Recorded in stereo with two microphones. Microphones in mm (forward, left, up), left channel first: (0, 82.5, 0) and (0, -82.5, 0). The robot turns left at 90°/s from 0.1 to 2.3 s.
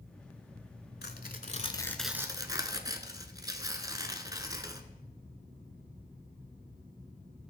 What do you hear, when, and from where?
1.0 s tearing paper: 95° left, 0.6 m; by 4.8 s 25° right, 0.6 m